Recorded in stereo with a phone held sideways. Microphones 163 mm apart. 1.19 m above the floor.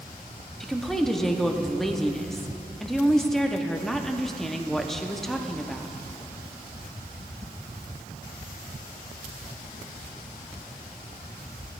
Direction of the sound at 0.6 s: Centre (ahead or behind).